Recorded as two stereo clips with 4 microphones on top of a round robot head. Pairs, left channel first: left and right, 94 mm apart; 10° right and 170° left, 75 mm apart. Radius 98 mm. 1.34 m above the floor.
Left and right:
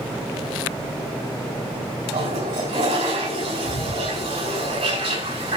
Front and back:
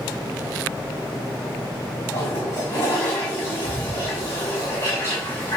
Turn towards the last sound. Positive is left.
turn(degrees=-70)